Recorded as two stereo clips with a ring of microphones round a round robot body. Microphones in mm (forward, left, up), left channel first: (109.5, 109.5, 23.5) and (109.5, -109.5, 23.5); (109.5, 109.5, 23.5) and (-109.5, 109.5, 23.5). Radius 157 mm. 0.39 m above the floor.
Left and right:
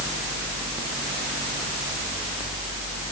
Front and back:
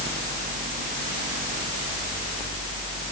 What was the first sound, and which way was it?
Only background noise.